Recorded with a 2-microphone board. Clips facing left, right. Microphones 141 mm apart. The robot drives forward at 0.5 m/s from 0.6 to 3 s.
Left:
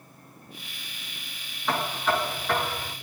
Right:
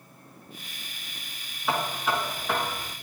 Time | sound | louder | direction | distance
1.7 | knocking | left 1 dB | 5° right (ahead or behind) | 4 m